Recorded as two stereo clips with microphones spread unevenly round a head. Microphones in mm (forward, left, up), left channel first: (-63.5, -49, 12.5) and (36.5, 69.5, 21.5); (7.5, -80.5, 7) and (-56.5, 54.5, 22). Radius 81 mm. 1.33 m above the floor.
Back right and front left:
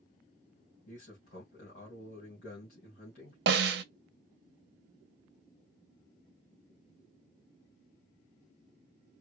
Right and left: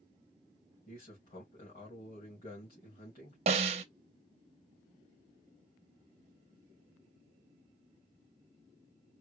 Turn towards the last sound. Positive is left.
turn(degrees=65)